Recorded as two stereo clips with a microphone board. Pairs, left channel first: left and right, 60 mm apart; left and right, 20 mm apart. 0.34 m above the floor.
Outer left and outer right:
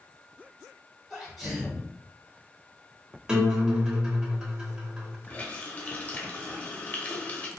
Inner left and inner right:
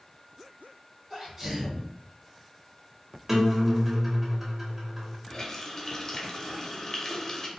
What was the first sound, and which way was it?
A sneeze, centre (ahead or behind).